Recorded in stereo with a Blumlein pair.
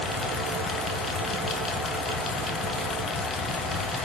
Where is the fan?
15° left, 1.4 m.